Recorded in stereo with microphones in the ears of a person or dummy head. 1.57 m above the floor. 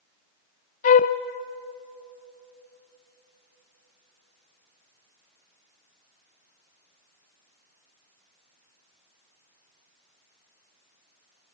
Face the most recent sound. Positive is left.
turn(degrees=35)  # may be behind; listen again after turning